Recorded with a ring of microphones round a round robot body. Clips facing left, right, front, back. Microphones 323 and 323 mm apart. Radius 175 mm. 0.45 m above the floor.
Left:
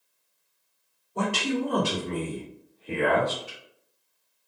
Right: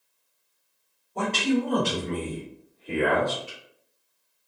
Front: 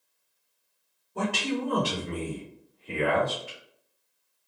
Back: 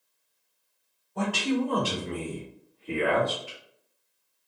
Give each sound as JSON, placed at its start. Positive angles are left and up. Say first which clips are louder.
{"t": 1.1, "sound": "a man speaking", "louder": "right 3 dB, back 3 dB", "azimuth_deg": 25, "distance_m": 1.3}